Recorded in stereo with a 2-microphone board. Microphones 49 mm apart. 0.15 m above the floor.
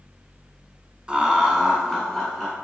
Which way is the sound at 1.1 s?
20° right (ahead or behind).